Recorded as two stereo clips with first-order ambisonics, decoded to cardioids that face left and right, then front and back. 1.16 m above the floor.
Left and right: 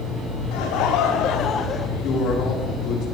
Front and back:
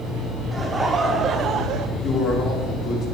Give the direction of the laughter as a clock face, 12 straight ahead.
9 o'clock.